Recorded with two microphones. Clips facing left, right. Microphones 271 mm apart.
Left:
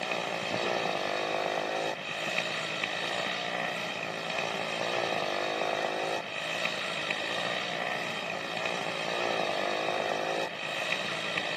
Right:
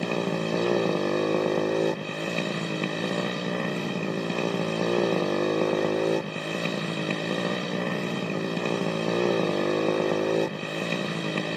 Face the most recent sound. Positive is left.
turn(degrees=-50)  # may be behind; listen again after turning